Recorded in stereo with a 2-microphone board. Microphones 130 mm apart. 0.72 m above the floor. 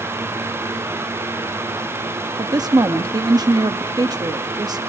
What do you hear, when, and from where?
2.4 s a woman speaking: 30° right (ahead or behind), 0.7 m